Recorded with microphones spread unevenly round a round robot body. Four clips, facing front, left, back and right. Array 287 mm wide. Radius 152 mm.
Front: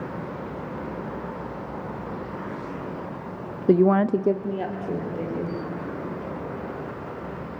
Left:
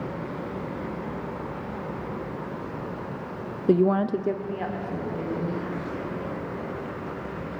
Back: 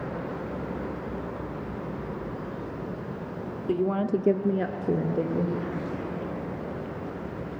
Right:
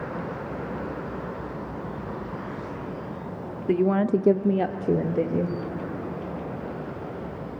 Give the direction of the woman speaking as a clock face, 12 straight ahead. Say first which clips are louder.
Left 1 dB, front 8 dB; 11 o'clock.